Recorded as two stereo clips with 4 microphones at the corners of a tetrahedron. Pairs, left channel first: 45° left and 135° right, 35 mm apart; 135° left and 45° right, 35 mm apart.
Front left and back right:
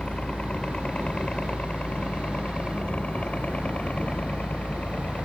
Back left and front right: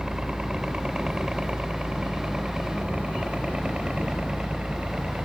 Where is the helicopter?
5° left; by 5.3 s 10° left.